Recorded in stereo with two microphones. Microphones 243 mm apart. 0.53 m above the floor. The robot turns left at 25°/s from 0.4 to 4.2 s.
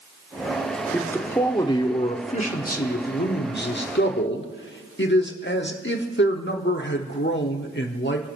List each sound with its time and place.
0.9 s a man speaking: 175° left, 1.2 m; by 8.4 s 90° left, 1.2 m